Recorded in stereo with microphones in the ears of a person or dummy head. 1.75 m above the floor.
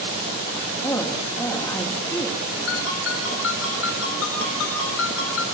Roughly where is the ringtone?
Left.